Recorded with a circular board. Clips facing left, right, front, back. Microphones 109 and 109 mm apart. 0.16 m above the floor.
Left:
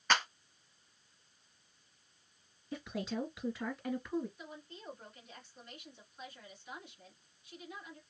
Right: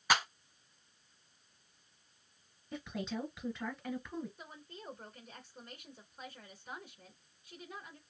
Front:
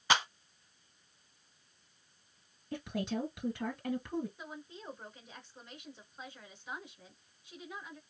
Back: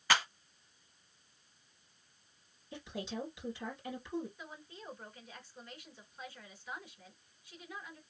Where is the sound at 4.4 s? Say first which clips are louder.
Left 1 dB, front 3 dB; 65° right, 2 m.